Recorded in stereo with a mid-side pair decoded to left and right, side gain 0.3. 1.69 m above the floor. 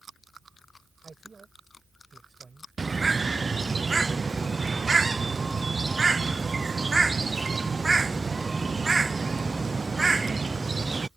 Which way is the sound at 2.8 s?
30° right.